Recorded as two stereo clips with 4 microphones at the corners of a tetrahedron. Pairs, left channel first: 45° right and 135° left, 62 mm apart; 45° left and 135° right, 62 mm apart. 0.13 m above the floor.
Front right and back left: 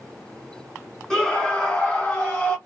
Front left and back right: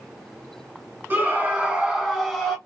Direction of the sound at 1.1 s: 115° right.